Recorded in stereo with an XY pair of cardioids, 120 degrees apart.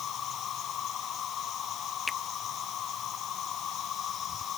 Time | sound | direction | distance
0.0 | an insect | 55° left | ?
2.1 | a finger snap | 20° left | ?